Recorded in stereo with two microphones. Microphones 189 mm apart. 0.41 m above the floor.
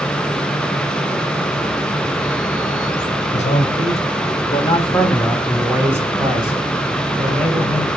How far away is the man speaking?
About 2 m.